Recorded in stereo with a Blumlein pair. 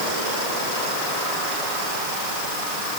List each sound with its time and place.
Only background noise.